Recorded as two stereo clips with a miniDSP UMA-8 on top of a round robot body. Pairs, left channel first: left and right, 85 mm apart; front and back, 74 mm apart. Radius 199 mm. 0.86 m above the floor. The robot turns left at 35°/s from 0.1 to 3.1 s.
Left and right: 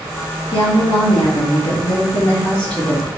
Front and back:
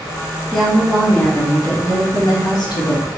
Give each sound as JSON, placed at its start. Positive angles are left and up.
{"t": 0.5, "sound": "a woman speaking", "azimuth_deg": 85, "distance_m": 1.7}